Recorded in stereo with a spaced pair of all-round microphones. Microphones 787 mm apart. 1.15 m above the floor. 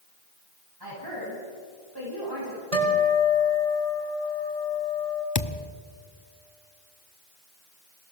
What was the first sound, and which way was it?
A woman speaking, 30° right (ahead or behind).